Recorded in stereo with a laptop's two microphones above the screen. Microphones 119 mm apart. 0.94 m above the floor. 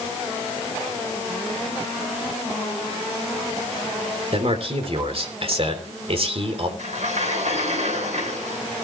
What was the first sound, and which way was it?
A man speaking, 50° right (ahead or behind).